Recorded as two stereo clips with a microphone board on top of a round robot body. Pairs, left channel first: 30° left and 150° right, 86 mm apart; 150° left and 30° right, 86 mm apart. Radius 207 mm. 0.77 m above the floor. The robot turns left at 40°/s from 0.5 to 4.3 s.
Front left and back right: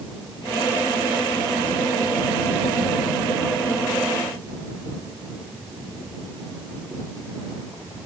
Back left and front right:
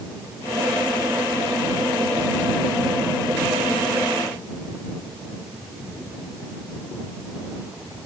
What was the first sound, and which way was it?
Only background noise.